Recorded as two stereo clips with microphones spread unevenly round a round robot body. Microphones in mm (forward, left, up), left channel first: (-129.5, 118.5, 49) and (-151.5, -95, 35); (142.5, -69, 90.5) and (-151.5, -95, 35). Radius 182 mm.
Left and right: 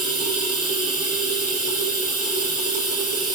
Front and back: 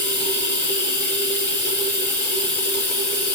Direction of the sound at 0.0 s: 50° right.